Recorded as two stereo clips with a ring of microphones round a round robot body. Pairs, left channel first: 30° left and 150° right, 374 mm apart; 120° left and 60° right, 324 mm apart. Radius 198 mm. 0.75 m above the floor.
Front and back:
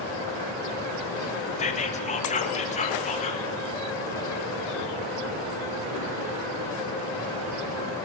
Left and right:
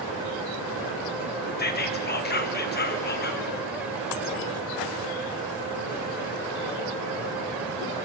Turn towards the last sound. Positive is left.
turn(degrees=90)